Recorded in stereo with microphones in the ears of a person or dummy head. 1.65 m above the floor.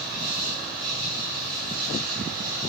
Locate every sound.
0.0 s an insect: 25° right (ahead or behind), 5.5 m